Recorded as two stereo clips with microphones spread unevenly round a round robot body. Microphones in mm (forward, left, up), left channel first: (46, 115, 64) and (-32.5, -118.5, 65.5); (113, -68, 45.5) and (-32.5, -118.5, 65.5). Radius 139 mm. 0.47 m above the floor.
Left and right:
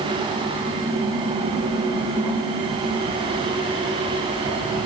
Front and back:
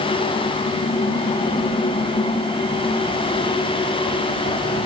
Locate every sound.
Only background noise.